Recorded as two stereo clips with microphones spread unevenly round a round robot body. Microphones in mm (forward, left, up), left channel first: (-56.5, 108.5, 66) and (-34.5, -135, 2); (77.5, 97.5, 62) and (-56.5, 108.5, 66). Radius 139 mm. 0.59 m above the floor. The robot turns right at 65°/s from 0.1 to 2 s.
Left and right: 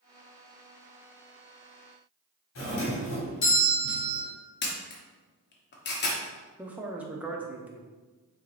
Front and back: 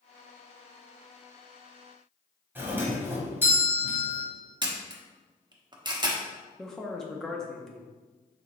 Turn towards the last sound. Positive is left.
turn(degrees=-80)